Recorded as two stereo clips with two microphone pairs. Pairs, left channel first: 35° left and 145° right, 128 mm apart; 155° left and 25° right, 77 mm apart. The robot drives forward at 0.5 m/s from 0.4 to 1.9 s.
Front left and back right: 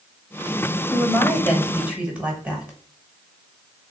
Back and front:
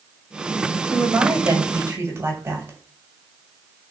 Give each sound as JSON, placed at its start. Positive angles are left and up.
{"t": 0.9, "sound": "a woman speaking", "azimuth_deg": -45, "distance_m": 1.8}